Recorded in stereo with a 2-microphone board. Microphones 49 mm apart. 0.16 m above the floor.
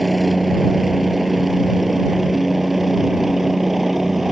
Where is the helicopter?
Centre (ahead or behind); by 4.3 s 5° right (ahead or behind).